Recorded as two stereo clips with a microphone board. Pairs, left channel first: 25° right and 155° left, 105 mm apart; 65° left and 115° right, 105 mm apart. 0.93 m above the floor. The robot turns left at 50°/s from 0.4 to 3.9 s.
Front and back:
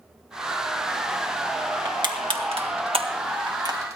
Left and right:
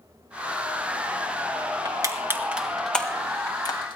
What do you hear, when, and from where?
1.9 s crushing: 155° right, 1.6 m; by 4.0 s 100° left, 1.6 m